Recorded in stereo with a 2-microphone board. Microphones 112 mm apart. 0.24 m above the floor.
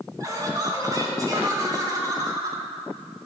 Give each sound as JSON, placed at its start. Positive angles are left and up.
{"t": 0.2, "sound": "laughter", "side_deg": -35, "distance_m": 3.0}